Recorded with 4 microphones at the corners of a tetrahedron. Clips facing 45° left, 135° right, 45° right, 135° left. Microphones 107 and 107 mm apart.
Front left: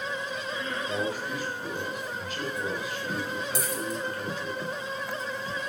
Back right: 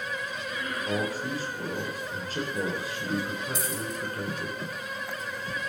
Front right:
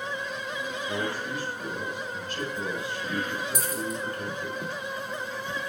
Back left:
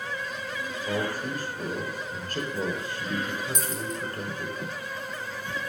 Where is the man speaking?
175° left, 6.5 m.